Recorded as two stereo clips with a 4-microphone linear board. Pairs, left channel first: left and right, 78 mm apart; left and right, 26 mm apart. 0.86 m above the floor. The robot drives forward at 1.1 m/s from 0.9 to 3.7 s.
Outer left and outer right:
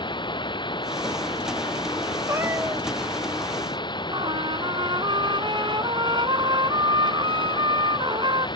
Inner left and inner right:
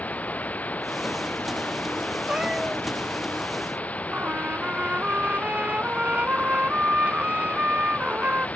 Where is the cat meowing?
35° right (ahead or behind); by 2.9 s 25° right (ahead or behind).